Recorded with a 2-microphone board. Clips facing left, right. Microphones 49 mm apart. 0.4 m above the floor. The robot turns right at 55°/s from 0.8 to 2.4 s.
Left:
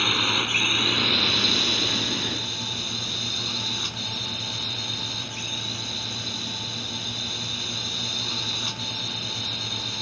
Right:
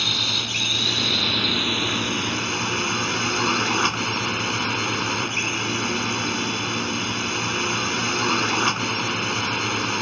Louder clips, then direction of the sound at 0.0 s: Left 2 dB; 155° left.